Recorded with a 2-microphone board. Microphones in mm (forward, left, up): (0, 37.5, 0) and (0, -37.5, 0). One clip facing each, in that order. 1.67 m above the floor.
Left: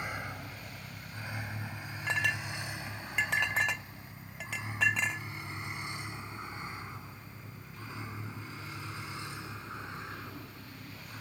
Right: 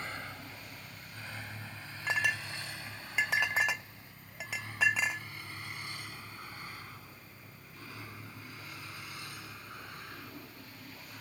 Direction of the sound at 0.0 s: 15° left (ahead or behind).